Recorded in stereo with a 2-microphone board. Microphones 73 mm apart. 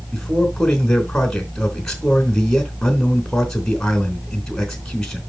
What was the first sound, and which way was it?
A man speaking, 10° left (ahead or behind).